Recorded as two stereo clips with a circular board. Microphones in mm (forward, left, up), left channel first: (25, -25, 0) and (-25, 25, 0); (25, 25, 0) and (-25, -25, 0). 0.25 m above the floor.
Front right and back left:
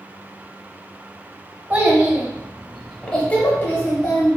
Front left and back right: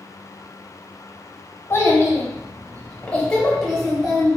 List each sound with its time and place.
1.7 s a child speaking: 85° left, 1.0 m; by 4.4 s 55° right, 1.0 m